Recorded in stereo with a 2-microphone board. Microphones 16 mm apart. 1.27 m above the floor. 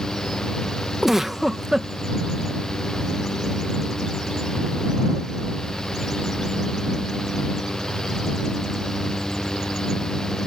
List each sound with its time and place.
1.0 s a giggle: 20° right (ahead or behind)